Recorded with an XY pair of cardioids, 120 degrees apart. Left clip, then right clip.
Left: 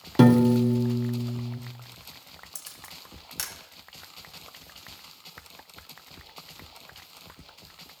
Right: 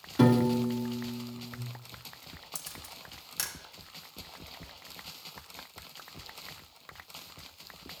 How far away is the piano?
About 0.9 m.